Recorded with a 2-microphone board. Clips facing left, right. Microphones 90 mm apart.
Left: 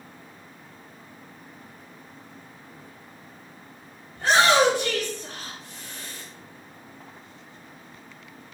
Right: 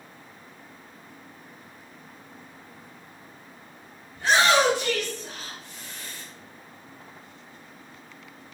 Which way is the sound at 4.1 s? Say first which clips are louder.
Left 2 dB; 45° left (ahead or behind).